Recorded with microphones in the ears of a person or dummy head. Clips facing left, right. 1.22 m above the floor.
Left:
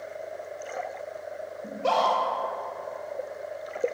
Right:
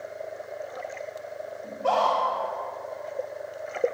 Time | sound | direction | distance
1.6 | a scream | 35° left (ahead or behind) | 2 m